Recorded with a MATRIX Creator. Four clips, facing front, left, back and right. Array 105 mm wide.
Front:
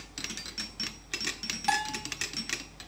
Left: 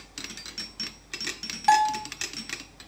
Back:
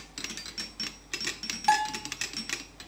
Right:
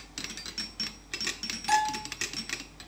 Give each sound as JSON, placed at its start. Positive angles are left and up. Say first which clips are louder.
{"t": 1.7, "sound": "a bell", "louder": "left 6 dB, back 5 dB", "azimuth_deg": 105, "distance_m": 5.5}